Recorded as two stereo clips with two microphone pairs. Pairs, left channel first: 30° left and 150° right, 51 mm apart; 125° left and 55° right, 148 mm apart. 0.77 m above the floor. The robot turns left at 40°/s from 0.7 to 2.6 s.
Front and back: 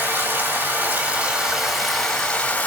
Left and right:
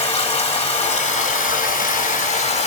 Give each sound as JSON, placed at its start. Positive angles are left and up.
{"t": 0.0, "sound": "running water", "azimuth_deg": 165, "distance_m": 1.8}